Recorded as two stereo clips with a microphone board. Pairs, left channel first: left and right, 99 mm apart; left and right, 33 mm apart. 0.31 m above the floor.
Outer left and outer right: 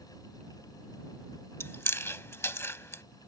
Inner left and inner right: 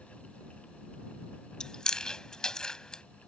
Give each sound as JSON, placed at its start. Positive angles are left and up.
{"t": 1.6, "sound": "chewing", "side_deg": 25}